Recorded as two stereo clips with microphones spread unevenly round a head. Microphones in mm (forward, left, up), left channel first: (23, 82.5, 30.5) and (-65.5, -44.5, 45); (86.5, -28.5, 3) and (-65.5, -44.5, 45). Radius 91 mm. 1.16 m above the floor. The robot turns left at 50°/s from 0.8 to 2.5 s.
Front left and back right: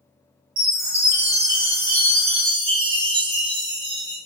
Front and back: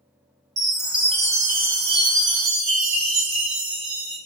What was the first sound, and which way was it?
A chime, 100° right.